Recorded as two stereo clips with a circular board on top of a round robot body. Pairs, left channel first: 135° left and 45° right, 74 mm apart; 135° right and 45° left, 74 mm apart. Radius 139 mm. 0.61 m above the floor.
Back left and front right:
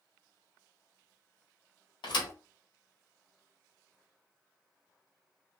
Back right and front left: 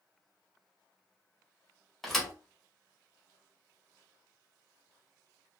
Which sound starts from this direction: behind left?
A thud, at 2.0 s.